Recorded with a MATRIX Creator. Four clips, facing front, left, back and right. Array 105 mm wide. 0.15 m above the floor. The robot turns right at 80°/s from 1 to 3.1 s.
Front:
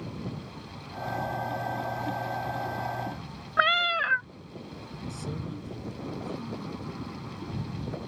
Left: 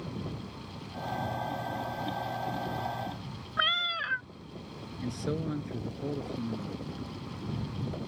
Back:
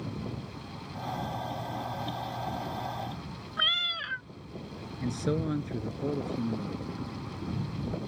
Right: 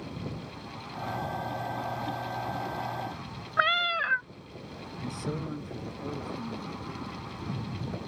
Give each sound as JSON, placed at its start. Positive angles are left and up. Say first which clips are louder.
{"t": 3.6, "sound": "a cat meowing", "louder": "right 5 dB, front 11 dB", "azimuth_deg": -30}
{"t": 5.0, "sound": "a man speaking", "louder": "left 2 dB, back 8 dB", "azimuth_deg": 165}